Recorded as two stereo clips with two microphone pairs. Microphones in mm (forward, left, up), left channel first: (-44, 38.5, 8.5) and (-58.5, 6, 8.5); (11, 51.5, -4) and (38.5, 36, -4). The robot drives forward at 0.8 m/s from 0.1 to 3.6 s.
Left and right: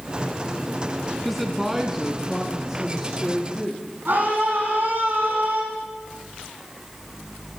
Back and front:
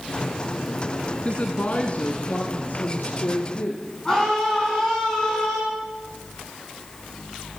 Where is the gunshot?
I don't hear a gunshot.